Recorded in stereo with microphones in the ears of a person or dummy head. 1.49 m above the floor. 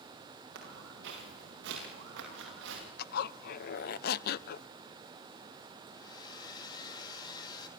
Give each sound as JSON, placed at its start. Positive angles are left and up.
{"t": 0.6, "sound": "footsteps", "side_deg": -65, "distance_m": 8.5}
{"t": 3.0, "sound": "a zipper", "side_deg": 55, "distance_m": 0.7}
{"t": 5.9, "sound": "a hair dryer", "side_deg": 25, "distance_m": 3.5}